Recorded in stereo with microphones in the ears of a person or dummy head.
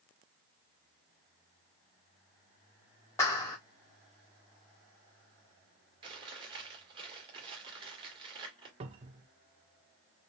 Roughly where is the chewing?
Right.